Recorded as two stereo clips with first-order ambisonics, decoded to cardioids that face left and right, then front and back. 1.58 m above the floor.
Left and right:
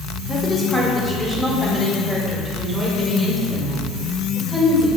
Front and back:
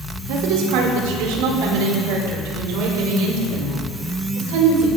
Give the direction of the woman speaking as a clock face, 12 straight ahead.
6 o'clock.